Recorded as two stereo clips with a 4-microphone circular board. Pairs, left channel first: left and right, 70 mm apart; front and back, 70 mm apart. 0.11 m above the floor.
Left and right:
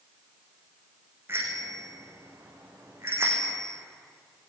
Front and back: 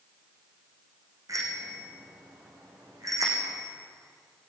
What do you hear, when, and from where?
1.3 s a bicycle bell: 145° right, 5.5 m